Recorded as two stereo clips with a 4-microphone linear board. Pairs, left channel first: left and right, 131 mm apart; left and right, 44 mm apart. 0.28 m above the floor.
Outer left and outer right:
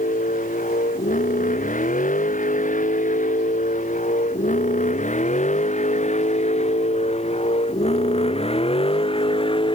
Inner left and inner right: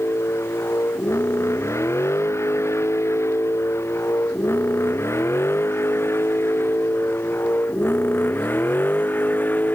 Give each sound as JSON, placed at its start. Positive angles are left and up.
{"t": 0.0, "sound": "a vehicle", "side_deg": 85}